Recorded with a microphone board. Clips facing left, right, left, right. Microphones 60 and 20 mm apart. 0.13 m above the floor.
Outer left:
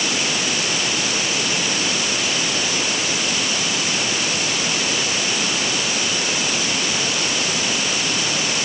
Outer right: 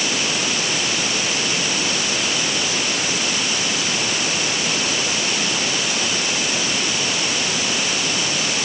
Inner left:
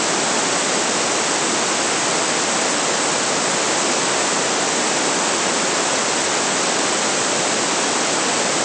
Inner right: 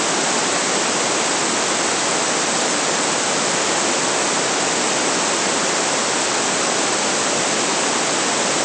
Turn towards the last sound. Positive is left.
No sound to turn to.